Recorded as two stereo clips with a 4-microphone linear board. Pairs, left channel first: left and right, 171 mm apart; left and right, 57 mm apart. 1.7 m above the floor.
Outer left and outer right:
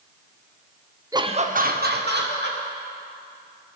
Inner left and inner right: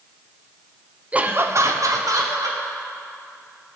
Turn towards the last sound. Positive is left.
turn(degrees=-90)